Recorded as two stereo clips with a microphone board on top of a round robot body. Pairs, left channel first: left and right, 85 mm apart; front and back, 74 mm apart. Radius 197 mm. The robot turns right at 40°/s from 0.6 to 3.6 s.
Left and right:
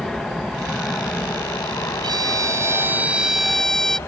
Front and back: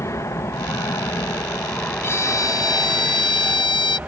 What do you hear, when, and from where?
0.0 s an aircraft: 5° left; by 4.1 s 125° left
2.0 s a violin: 55° right; by 4.0 s 5° left